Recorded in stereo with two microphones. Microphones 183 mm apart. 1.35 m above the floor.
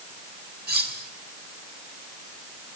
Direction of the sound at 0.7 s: 65° right (ahead or behind).